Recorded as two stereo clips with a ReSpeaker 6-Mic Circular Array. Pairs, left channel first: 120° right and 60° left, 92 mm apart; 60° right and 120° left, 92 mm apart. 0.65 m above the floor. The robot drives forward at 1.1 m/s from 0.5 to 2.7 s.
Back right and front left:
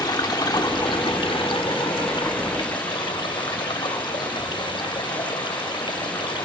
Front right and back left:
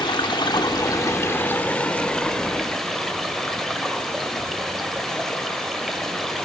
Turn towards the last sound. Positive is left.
turn(degrees=-150)